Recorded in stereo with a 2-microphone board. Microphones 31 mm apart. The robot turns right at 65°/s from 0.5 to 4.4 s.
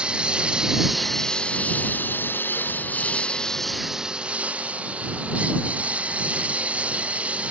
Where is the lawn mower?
30° right (ahead or behind); by 7.5 s 40° right (ahead or behind).